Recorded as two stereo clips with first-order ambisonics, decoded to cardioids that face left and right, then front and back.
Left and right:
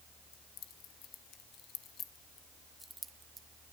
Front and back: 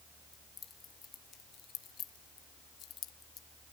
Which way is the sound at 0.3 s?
65° left.